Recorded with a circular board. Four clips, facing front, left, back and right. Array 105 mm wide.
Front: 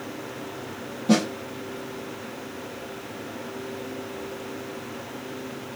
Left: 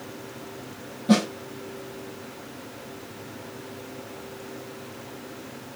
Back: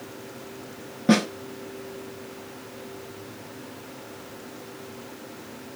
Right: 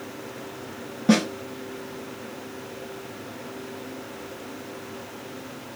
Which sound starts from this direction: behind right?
A snare drum, at 1.1 s.